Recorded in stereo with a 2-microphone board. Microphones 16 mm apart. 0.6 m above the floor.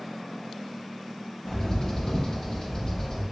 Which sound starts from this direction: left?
A bird, at 1.4 s.